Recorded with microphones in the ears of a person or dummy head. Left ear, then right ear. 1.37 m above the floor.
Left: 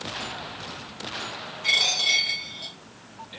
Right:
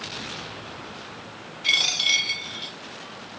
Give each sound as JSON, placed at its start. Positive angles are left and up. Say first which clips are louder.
{"t": 1.6, "sound": "a dropped coin", "louder": "even", "side_deg": 20, "distance_m": 1.2}